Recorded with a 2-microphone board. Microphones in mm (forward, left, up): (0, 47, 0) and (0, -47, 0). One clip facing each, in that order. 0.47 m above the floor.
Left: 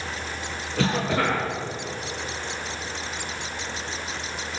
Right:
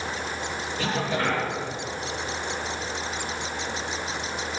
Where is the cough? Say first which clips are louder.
Left 4 dB; 80° left, 6.5 m.